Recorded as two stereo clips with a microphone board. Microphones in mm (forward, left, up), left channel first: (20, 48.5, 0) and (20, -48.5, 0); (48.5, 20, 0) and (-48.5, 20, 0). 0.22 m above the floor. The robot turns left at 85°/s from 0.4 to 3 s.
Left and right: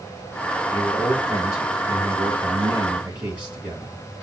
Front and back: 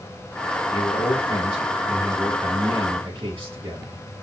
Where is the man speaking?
35° left, 3.5 m; by 4.0 s 160° right, 3.5 m.